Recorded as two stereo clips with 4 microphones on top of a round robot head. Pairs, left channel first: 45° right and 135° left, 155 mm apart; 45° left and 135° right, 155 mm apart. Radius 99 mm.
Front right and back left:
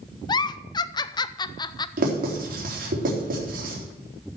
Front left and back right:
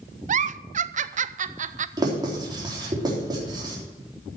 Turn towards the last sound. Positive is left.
turn(degrees=160)